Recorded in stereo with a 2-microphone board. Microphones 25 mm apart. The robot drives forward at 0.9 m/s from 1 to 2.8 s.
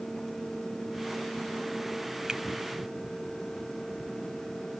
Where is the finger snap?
35° right (ahead or behind).